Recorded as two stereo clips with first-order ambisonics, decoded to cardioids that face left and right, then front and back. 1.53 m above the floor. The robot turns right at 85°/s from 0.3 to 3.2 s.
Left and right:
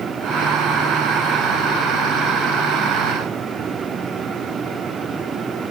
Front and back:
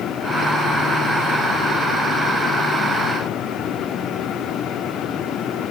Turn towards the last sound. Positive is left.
No sound to turn to.